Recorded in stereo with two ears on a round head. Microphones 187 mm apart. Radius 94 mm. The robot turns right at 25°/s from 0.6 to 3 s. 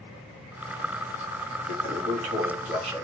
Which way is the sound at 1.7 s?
65° right.